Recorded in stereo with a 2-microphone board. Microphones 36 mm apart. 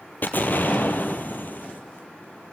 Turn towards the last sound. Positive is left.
turn(degrees=60)  # may be behind; listen again after turning